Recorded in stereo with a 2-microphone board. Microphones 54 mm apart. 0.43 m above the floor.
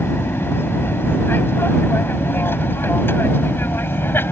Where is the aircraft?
45° left (ahead or behind).